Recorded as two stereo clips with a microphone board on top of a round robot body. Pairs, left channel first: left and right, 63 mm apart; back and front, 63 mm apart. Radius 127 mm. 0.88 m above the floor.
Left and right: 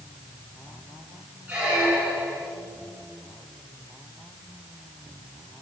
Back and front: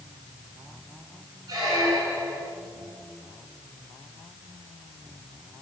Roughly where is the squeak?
Ahead.